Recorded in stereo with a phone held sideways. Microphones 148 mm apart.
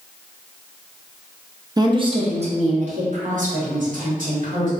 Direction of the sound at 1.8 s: 25° right (ahead or behind).